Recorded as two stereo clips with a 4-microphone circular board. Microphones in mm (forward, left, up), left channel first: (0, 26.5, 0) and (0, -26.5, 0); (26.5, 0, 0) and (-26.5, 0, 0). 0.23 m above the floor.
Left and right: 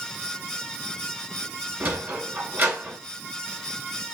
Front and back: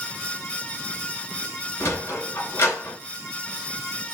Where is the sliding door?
40° right, 2.5 m.